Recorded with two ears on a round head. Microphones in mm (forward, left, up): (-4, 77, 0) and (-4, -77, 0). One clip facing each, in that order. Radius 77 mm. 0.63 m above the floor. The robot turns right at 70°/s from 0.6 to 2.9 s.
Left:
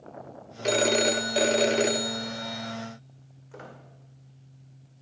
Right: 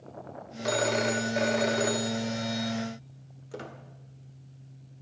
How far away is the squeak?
About 1.7 m.